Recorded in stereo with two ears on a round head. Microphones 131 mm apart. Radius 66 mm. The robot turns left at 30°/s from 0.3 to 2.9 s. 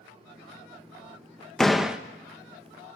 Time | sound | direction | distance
1.6 | a door slam | centre (ahead or behind) | 1.1 m